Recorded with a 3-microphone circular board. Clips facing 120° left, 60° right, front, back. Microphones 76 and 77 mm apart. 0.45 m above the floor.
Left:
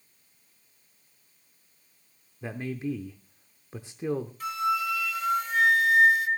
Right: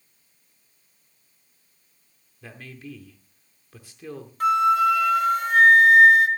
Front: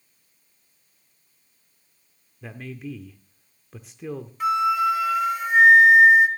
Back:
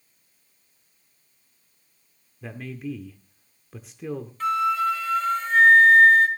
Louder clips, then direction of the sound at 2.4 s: Left 9 dB, back 2 dB; 90° left.